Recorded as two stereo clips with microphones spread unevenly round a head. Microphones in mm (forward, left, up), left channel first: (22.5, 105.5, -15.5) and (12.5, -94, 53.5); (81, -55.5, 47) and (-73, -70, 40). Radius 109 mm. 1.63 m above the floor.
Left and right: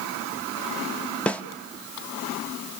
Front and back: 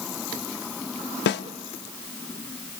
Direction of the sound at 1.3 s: 5° left.